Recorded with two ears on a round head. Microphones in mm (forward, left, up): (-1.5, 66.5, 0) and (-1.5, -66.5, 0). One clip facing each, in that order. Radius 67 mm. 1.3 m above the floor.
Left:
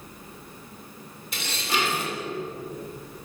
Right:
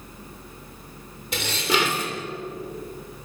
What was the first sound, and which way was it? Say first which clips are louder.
Dishes clattering: right 5 dB; 60° right (ahead or behind).